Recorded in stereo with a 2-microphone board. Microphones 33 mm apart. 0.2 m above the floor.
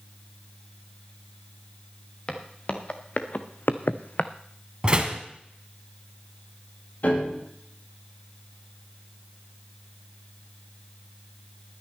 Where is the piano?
60° left (ahead or behind), 6 m.